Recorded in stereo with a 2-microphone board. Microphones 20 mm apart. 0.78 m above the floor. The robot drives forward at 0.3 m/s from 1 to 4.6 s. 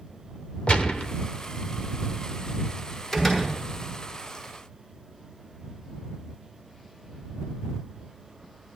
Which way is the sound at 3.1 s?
25° left (ahead or behind).